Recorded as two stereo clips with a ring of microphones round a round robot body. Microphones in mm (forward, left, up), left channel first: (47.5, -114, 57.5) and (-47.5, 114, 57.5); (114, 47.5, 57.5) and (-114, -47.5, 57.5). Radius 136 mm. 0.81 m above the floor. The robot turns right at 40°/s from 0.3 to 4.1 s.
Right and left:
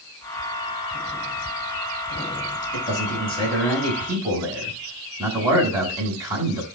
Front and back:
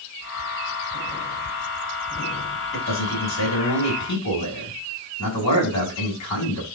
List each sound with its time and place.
2.7 s a man speaking: 20° right, 7.5 m; by 6.7 s 35° left, 7.5 m